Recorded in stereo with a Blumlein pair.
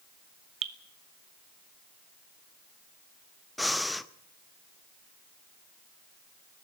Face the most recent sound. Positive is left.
turn(degrees=5)